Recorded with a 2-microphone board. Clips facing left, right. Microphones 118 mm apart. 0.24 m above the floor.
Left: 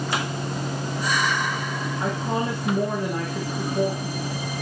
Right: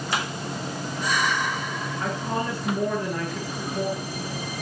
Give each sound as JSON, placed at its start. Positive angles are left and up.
{"t": 2.0, "sound": "a woman speaking", "side_deg": 15, "distance_m": 4.5}